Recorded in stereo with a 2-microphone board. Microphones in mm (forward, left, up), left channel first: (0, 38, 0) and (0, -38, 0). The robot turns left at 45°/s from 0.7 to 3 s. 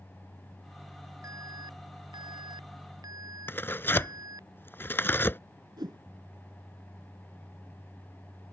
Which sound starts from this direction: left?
Tearing paper, at 3.5 s.